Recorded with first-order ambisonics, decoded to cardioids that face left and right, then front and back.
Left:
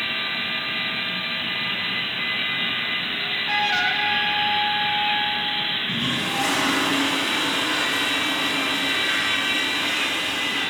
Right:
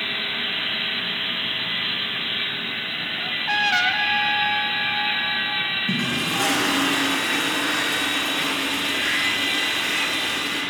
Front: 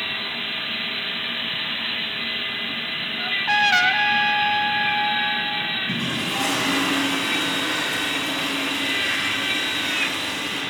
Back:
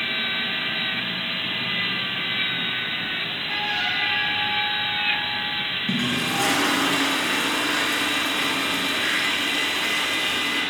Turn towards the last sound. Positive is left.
turn(degrees=-130)